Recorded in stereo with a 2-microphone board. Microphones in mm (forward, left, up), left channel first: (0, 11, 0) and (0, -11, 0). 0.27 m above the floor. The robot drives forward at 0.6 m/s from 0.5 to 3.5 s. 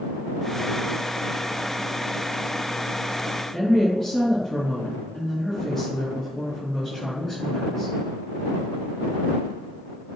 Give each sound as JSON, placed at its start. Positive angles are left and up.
{"t": 3.5, "sound": "a woman speaking", "side_deg": 15, "distance_m": 3.5}